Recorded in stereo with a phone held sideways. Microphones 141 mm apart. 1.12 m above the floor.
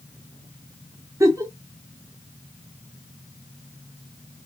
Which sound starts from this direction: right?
A giggle, at 1.2 s.